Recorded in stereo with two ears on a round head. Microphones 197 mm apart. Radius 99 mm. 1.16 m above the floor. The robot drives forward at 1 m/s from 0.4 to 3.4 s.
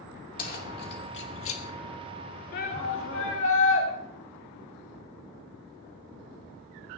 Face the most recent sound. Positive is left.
turn(degrees=60)  # may be behind; listen again after turning